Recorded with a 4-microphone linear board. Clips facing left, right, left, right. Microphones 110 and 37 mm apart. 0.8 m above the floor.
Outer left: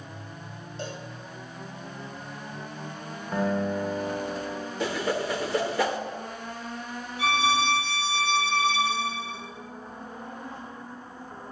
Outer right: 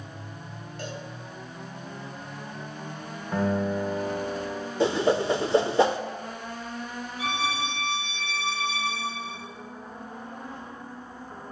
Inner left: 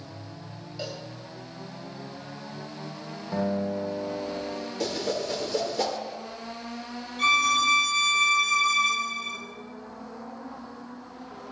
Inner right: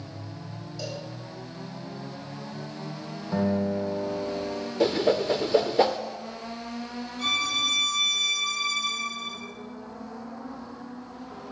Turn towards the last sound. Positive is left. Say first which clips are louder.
# outer left 6 dB, inner left 5 dB
turn(degrees=75)  # may be behind; listen again after turning